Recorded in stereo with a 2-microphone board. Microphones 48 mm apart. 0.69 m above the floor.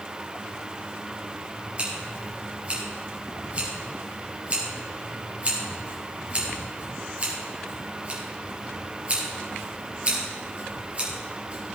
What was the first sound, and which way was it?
Scissors, 30° right (ahead or behind).